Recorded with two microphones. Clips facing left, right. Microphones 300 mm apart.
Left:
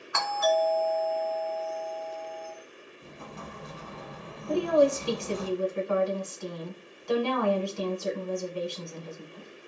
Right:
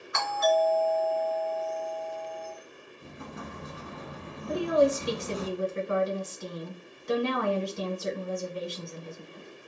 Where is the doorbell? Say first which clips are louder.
Right 1 dB; 25° right (ahead or behind), 1.5 m.